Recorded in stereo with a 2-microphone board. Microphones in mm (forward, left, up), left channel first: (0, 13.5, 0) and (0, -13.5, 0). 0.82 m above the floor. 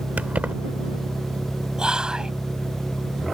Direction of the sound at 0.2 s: 85° right.